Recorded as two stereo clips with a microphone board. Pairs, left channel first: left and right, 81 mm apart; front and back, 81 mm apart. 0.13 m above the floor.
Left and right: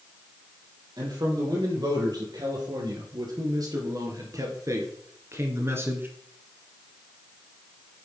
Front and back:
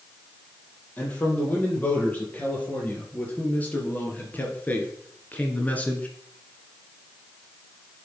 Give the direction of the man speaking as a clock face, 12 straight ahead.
2 o'clock.